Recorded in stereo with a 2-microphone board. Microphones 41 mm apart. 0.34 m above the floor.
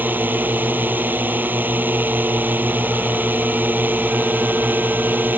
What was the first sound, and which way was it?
A drone, 50° right (ahead or behind).